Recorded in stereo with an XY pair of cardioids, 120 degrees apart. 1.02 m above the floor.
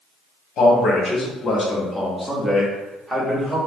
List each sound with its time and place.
0.6 s a man speaking: 60° left, 1.3 m; by 3.6 s 10° right, 1.8 m